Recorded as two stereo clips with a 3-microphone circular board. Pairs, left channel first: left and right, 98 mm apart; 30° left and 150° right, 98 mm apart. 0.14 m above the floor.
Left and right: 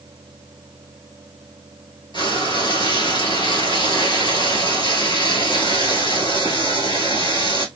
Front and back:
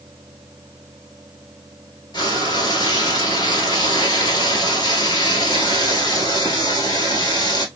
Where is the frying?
65° left, 1.3 m.